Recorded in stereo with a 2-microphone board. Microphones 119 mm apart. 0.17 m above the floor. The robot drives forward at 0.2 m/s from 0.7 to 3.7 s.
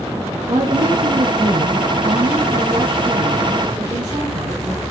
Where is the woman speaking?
45° right (ahead or behind), 2 m; by 4.8 s 40° right (ahead or behind), 2.5 m.